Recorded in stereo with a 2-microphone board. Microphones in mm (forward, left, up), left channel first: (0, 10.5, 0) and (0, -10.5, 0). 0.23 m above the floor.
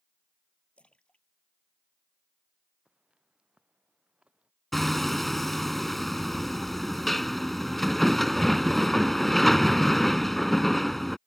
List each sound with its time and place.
0.8 s a splash: 75° left (ahead or behind)
2.9 s footsteps: 60° right (ahead or behind); by 4.5 s 55° right (ahead or behind)
4.7 s hammering: 5° left (ahead or behind)